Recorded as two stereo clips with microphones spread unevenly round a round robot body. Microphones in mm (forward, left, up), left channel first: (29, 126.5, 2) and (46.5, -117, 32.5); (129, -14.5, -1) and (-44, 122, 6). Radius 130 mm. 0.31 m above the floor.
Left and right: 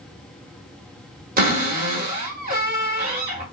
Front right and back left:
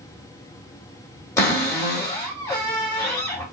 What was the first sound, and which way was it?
A cupboard door, 100° right.